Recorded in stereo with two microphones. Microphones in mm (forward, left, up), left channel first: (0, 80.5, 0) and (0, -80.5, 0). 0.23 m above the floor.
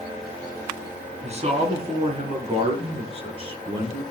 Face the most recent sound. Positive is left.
turn(degrees=-30)  # may be behind; listen again after turning